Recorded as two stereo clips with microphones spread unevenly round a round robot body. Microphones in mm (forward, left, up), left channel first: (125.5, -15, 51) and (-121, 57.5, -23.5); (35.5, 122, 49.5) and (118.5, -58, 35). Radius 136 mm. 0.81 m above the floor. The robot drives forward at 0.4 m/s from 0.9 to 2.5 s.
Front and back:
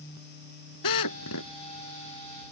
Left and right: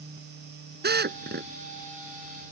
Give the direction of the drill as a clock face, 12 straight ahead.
1 o'clock.